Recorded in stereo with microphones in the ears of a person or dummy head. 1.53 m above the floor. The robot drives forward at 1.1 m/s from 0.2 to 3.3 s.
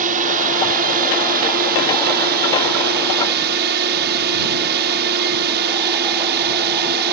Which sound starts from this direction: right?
A drone, at 0.0 s.